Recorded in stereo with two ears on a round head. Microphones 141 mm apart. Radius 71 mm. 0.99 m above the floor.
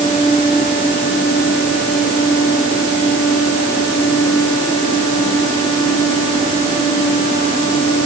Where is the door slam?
I don't hear a door slam.